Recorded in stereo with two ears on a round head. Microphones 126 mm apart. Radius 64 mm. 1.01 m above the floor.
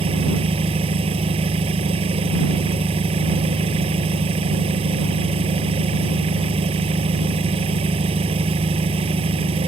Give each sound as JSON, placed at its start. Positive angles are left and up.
{"t": 0.0, "sound": "an engine running", "side_deg": -45}